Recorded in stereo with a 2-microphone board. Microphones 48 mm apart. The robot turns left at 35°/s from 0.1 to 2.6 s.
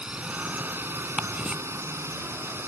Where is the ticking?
30° right (ahead or behind); by 1.6 s 15° right (ahead or behind).